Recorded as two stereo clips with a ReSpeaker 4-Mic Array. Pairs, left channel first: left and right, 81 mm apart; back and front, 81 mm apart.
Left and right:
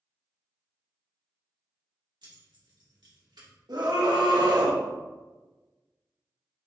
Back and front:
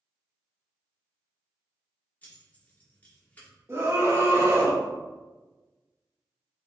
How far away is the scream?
About 1.9 m.